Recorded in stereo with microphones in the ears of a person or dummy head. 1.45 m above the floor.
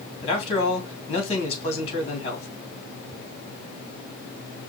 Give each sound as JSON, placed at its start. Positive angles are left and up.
{"t": 0.2, "sound": "a man speaking", "side_deg": 30, "distance_m": 2.5}